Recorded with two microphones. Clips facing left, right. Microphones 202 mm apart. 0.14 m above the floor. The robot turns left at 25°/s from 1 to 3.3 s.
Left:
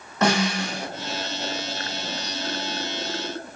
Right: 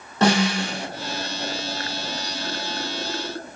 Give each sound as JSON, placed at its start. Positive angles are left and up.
{"t": 0.2, "sound": "a snare drum", "side_deg": -30, "distance_m": 0.9}